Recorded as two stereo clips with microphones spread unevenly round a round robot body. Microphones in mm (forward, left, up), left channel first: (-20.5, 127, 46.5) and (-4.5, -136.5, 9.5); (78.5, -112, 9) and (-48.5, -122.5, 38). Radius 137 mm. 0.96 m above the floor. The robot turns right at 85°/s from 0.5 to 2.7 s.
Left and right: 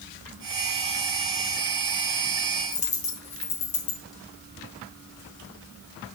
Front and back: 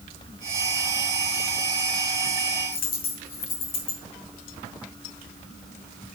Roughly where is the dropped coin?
Ahead left.